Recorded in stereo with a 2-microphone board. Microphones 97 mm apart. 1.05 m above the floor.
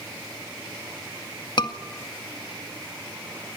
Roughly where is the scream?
Left.